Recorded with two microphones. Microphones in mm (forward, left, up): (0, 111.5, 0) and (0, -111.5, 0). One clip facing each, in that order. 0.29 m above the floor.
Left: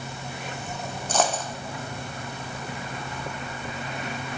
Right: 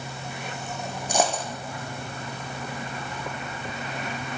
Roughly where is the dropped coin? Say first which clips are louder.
Even; centre.